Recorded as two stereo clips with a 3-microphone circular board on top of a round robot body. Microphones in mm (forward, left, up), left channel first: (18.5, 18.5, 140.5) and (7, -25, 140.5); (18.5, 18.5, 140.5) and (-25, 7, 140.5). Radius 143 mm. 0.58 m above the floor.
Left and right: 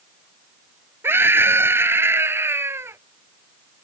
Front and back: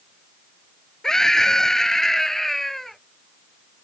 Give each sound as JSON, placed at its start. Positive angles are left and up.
{"t": 1.0, "sound": "a scream", "azimuth_deg": -60}